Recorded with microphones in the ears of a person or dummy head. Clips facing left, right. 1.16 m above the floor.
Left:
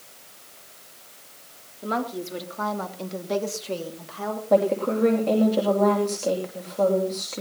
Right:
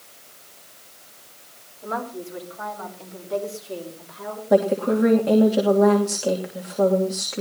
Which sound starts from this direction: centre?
A woman speaking, at 4.5 s.